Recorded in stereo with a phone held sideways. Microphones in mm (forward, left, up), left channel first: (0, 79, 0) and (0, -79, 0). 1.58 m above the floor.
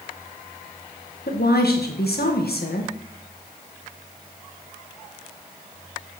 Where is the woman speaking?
85° left, 2 m.